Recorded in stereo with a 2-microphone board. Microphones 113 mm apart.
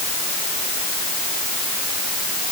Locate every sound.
Only background noise.